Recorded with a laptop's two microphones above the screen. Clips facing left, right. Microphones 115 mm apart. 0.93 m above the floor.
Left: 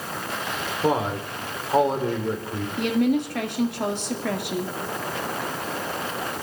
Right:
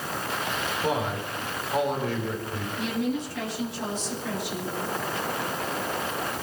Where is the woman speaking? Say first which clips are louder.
Left 7 dB; 65° left (ahead or behind), 2.0 m.